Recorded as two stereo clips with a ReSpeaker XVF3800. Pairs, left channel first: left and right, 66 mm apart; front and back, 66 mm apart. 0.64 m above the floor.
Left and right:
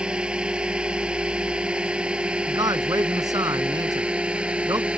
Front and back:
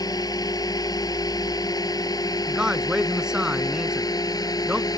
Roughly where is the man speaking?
Right.